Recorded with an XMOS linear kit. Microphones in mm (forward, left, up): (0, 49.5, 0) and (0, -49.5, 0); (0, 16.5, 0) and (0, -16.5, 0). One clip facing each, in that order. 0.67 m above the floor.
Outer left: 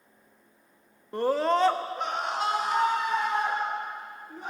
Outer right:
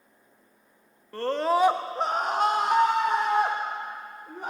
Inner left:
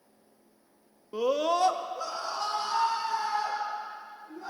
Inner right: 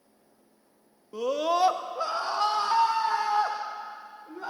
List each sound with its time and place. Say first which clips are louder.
1.1 s a scream: even, even; 20° left (ahead or behind), 0.5 m; by 4.5 s 70° right (ahead or behind), 1.9 m